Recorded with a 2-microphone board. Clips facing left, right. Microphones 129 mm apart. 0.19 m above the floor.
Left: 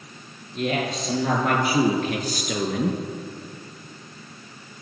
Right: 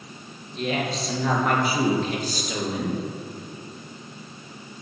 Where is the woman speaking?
40° left (ahead or behind), 3 m; by 3.0 s 60° left (ahead or behind), 2.5 m.